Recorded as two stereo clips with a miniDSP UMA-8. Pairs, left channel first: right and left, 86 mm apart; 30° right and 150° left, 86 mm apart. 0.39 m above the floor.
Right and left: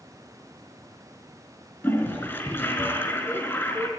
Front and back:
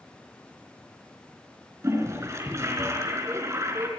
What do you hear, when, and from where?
1.8 s a toilet flushing: 155° right, 4 m